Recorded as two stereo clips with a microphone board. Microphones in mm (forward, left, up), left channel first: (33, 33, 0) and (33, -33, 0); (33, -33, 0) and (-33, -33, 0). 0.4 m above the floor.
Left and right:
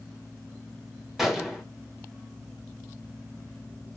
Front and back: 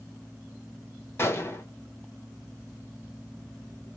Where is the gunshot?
5° right, 1.5 m.